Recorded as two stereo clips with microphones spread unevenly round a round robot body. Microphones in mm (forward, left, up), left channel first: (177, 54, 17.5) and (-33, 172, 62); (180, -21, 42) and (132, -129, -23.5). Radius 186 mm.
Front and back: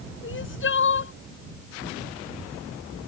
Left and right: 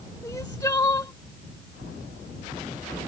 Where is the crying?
15° left.